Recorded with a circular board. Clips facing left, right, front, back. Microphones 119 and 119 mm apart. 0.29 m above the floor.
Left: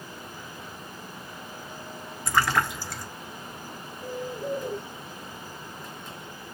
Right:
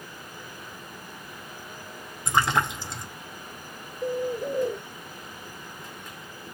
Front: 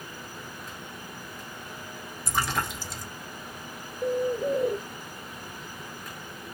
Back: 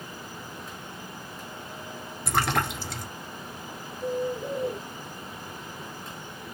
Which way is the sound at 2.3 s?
160° right.